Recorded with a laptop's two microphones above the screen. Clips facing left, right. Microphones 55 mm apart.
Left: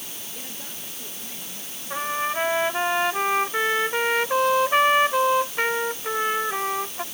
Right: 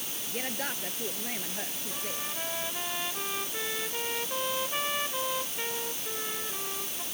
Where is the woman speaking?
55° right (ahead or behind).